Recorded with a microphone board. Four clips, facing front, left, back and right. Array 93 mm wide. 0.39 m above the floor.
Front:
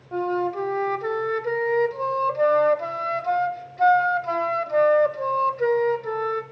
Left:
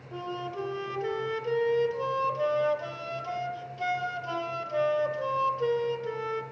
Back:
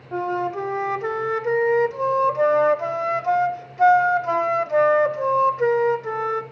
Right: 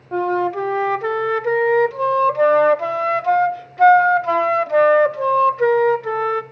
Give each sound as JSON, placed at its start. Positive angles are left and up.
{"t": 0.1, "sound": "a flute", "azimuth_deg": -100, "distance_m": 0.6}